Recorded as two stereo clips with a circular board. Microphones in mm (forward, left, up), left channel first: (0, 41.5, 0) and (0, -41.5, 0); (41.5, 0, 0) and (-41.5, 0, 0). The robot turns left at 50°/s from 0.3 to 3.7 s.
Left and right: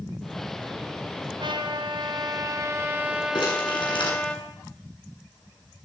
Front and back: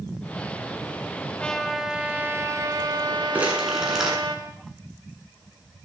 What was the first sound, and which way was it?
A trumpet, 75° right.